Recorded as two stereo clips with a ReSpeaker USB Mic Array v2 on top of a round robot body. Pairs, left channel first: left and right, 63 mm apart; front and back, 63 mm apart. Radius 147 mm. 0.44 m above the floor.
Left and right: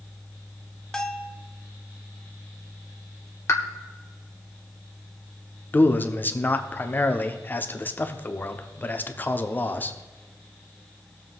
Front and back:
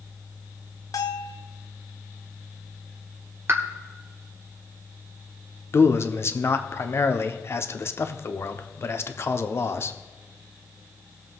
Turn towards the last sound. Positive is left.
turn(degrees=35)